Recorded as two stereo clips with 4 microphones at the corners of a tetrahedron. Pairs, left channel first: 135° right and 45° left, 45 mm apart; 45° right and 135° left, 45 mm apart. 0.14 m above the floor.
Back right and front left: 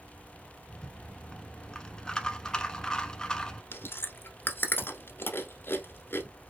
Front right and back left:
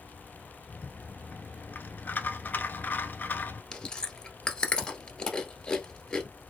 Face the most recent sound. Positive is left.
turn(degrees=-115)